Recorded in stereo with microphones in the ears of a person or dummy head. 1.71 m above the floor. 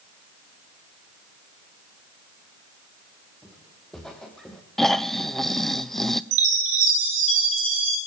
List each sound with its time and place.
3.4 s footsteps: 5° left (ahead or behind), 4.5 m
4.8 s snoring: 5° left (ahead or behind), 0.7 m
6.3 s a chime: 70° right (ahead or behind), 3.5 m